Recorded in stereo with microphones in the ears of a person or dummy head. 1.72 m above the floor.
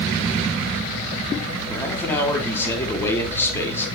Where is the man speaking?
15° left (ahead or behind), 3 m.